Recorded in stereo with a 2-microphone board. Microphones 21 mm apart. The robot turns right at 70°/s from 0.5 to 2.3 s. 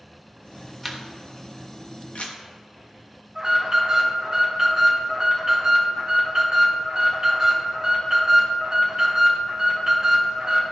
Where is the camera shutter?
10° left (ahead or behind), 1.1 m; by 2.4 s 70° left (ahead or behind), 1.1 m.